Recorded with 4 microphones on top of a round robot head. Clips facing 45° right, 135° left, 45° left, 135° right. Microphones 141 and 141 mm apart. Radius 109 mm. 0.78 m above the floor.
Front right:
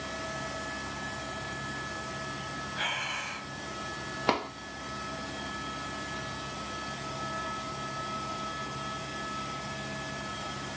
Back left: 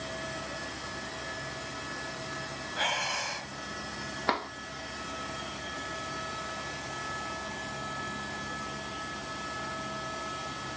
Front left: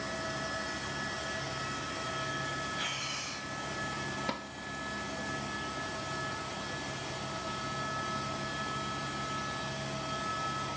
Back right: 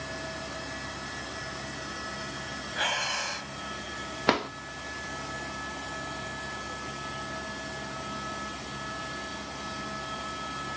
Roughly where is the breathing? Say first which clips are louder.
Back left 7 dB, back right 8 dB; behind.